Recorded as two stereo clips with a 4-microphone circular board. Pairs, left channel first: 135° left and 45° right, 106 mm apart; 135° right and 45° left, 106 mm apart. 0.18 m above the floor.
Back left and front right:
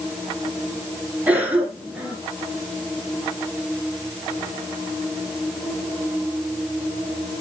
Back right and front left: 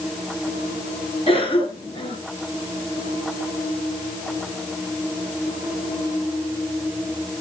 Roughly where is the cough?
Behind right.